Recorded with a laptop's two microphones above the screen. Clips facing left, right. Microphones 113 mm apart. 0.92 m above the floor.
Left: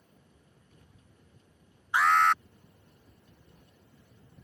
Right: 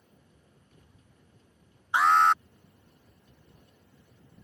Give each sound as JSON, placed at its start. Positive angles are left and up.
{"t": 1.9, "sound": "an alarm", "side_deg": -20}